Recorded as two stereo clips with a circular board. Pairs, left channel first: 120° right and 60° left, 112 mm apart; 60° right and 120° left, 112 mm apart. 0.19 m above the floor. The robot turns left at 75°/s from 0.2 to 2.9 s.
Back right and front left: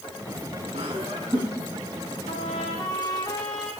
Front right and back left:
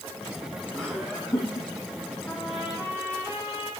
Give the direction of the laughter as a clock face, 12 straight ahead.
11 o'clock.